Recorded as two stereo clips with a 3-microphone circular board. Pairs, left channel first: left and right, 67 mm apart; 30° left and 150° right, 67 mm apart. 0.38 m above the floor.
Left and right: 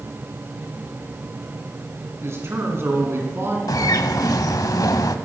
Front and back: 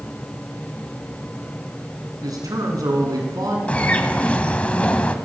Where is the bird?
100° left, 0.8 m.